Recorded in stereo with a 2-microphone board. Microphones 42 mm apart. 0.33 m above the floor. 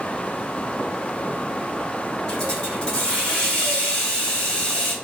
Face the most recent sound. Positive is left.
turn(degrees=20)  # may be behind; listen again after turning